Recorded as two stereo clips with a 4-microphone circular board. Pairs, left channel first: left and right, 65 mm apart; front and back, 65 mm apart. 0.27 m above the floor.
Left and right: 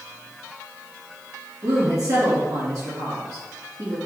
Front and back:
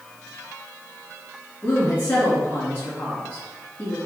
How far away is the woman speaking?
About 3 m.